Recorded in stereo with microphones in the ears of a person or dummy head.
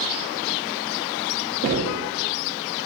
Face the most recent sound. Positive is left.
turn(degrees=-40)  # may be behind; listen again after turning